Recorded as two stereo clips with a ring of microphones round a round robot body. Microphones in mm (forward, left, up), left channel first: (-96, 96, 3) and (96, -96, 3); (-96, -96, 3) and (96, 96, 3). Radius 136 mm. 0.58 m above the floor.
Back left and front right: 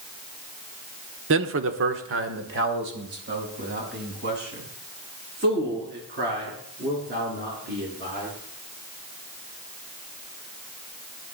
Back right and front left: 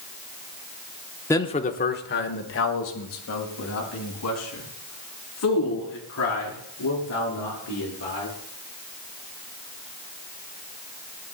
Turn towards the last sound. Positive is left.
turn(degrees=-100)